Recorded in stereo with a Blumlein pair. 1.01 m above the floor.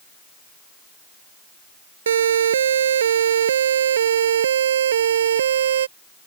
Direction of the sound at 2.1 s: 65° right.